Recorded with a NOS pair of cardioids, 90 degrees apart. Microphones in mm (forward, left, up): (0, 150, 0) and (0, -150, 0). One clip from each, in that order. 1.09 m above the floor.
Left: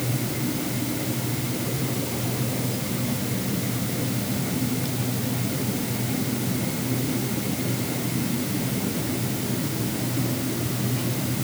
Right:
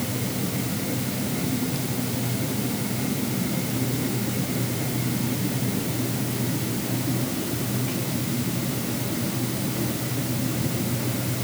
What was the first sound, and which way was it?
Only background noise.